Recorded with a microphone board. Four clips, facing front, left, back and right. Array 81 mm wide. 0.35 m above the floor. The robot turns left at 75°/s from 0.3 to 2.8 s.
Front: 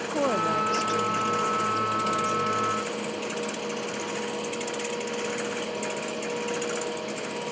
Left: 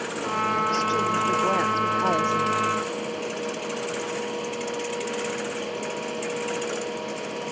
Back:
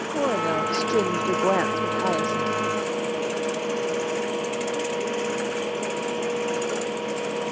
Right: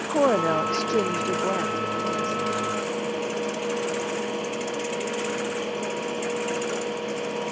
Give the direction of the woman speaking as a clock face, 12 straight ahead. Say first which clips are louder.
Right 7 dB, back 1 dB; 3 o'clock.